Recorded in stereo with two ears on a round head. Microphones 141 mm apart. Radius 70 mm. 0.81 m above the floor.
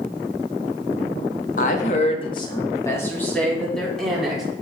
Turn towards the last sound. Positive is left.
turn(degrees=0)  # may be behind; listen again after turning